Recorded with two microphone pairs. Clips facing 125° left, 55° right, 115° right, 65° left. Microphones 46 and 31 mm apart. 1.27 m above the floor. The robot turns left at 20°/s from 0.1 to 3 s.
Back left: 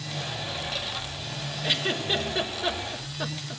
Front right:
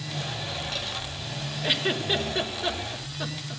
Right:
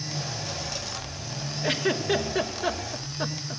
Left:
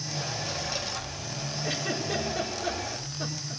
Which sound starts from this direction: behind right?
A giggle, at 1.6 s.